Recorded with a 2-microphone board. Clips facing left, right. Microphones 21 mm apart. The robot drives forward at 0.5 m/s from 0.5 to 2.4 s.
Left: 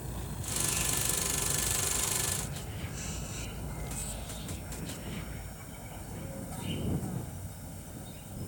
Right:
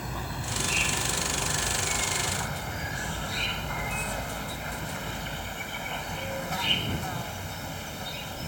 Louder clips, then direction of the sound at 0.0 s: Right 7 dB; 50° right (ahead or behind).